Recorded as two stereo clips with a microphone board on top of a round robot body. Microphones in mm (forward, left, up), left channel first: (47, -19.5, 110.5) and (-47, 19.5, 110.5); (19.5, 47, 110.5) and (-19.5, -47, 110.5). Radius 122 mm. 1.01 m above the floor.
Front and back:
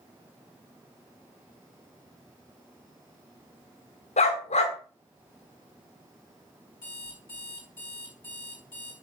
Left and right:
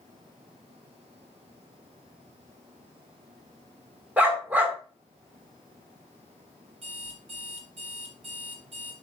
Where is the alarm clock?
90° right, 3.5 m.